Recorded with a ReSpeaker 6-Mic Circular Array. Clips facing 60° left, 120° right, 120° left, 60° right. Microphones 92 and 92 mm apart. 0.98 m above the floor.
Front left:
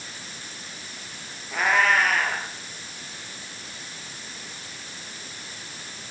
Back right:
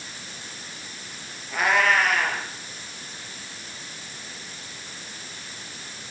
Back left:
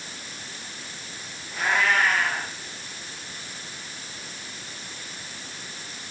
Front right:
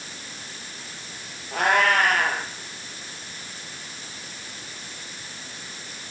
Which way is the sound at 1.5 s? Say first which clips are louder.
Even, front right 3 dB; 25° right.